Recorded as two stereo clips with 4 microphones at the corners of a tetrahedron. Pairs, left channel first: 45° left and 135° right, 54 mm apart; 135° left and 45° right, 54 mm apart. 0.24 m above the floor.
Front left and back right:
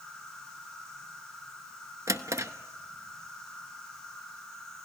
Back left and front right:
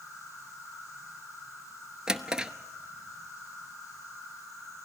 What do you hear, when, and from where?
0.0 s an insect: 30° right, 9 m
2.1 s a drawer: 120° right, 0.8 m